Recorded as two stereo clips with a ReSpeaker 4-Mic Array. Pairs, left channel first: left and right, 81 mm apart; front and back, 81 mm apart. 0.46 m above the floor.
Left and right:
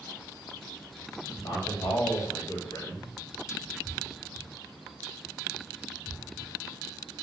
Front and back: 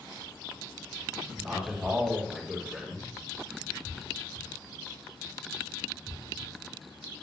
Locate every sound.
1.4 s a man speaking: 105° left, 2.5 m